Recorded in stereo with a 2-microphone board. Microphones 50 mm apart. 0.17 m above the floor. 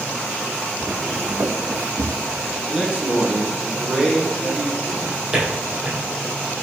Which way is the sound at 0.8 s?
10° right (ahead or behind).